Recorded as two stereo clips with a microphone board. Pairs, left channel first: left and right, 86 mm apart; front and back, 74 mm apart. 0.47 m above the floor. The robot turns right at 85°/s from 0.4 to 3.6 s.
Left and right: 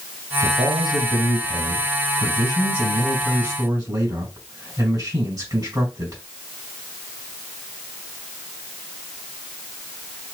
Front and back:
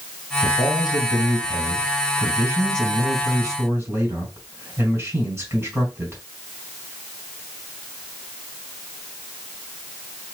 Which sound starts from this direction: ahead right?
A man speaking, at 0.4 s.